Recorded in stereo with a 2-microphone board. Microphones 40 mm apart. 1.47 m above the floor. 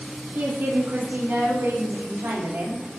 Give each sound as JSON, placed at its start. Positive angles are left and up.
{"t": 0.3, "sound": "a woman speaking", "side_deg": -65, "distance_m": 1.7}